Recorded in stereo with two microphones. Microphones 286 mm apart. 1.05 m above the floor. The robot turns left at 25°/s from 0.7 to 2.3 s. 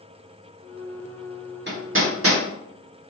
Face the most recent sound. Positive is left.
turn(degrees=-55)  # may be behind; listen again after turning